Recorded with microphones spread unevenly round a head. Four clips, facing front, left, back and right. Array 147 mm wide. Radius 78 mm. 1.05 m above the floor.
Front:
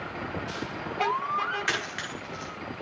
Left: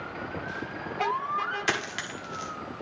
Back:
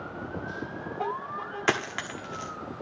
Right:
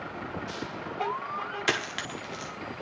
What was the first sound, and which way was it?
A dropped coin, 170° right.